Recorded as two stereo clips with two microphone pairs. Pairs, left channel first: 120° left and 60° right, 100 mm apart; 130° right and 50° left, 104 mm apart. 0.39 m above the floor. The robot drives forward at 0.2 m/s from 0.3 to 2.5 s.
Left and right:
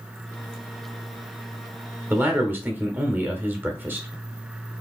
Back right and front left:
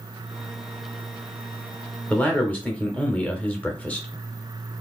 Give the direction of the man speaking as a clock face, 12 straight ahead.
2 o'clock.